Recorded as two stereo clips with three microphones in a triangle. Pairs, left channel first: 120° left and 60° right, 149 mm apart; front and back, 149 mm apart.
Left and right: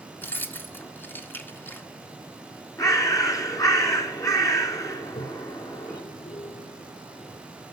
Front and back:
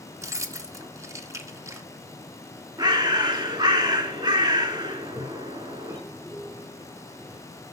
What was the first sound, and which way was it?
Keys jangling, 170° left.